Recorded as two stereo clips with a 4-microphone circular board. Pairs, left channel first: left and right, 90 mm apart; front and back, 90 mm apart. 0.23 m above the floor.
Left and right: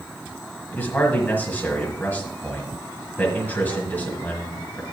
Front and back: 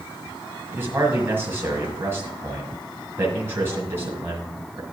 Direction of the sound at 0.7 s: 140° left.